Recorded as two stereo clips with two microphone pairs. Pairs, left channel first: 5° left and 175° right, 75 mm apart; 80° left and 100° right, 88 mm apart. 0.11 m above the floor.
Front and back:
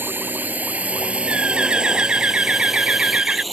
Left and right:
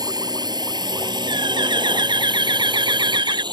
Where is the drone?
120° right; by 3.5 s 85° right.